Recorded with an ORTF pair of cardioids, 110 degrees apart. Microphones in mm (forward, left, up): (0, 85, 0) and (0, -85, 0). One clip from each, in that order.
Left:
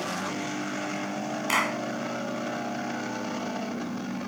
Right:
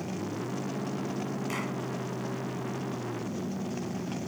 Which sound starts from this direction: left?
A clap, at 1.5 s.